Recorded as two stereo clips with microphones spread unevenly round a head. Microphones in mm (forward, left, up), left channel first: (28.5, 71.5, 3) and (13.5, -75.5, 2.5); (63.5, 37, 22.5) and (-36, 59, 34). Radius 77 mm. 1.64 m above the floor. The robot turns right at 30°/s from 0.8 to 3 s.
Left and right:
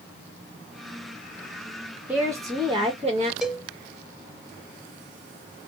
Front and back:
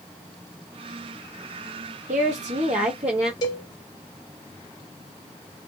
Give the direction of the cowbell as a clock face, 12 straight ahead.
12 o'clock.